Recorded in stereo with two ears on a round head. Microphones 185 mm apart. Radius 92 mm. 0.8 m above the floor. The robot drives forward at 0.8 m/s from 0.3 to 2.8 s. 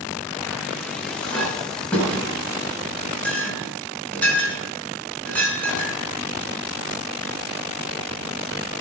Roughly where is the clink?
Centre.